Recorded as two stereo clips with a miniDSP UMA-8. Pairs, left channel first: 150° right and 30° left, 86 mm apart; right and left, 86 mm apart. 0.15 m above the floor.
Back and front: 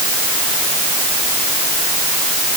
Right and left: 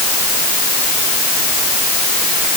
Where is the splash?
I don't hear a splash.